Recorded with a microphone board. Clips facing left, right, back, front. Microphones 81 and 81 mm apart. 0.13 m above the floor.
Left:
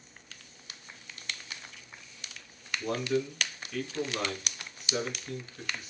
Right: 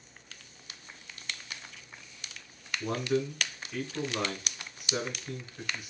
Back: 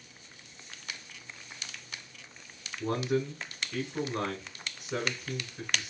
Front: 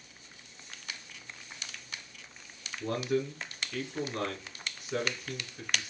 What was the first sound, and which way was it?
A man speaking, 150° right.